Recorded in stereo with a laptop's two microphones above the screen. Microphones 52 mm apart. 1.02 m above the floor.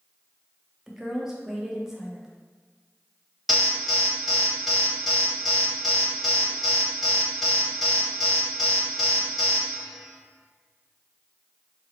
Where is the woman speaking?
10° right (ahead or behind), 0.6 m.